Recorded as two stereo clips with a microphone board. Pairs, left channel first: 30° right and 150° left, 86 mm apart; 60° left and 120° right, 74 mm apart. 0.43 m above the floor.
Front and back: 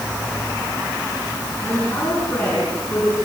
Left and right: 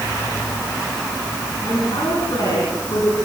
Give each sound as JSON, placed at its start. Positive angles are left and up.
{"t": 1.6, "sound": "a man speaking", "azimuth_deg": 40, "distance_m": 5.5}